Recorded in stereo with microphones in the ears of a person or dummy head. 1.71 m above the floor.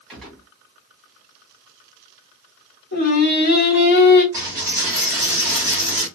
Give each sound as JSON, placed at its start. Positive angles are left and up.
{"t": 0.1, "sound": "a gunshot", "side_deg": 0, "distance_m": 2.0}
{"t": 2.9, "sound": "singing", "side_deg": 55, "distance_m": 1.2}
{"t": 4.3, "sound": "a dropped coin", "side_deg": -10, "distance_m": 1.3}